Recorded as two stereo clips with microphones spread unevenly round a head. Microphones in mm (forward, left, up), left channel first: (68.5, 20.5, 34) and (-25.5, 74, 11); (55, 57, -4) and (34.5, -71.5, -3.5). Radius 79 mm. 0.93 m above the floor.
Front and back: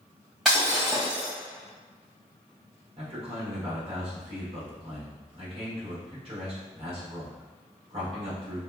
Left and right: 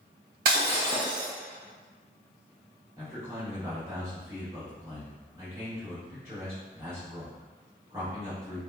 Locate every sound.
0.5 s breaking glass: 120° right, 1.6 m
3.0 s a man speaking: 175° right, 1.2 m